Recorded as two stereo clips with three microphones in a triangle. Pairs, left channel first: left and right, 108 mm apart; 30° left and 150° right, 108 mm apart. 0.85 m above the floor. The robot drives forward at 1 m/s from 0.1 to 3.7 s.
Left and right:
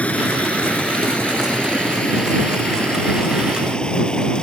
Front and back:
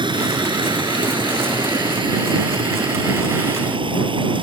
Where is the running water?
170° left.